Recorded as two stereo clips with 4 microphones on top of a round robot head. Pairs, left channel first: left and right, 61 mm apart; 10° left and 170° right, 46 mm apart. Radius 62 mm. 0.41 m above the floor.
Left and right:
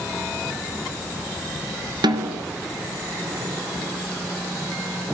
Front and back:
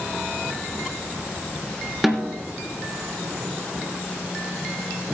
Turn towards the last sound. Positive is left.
turn(degrees=-85)